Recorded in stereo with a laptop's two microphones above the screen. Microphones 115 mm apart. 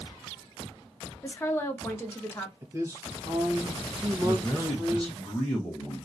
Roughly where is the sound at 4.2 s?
Centre.